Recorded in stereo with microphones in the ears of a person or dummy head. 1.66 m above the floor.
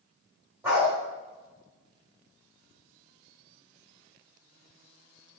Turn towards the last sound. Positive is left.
turn(degrees=-5)  # may be behind; listen again after turning